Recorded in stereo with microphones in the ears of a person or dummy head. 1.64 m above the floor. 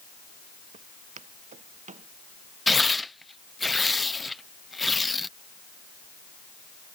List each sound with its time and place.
0.7 s footsteps: 45° right (ahead or behind)
2.7 s tearing paper: centre (ahead or behind)